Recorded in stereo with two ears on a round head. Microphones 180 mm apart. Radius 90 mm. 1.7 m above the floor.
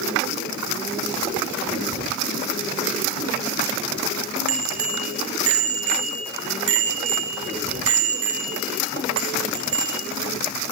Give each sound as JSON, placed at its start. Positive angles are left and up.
{"t": 4.5, "sound": "a bicycle bell", "side_deg": -75, "distance_m": 4.5}